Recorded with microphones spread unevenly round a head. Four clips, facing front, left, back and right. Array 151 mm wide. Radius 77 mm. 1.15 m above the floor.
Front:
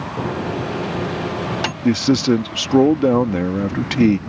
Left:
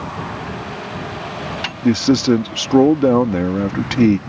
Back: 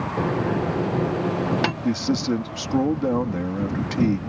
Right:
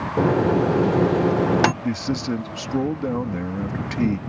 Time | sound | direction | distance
0.2 | a microwave | 90° right | ?
1.8 | a man speaking | 50° left | ?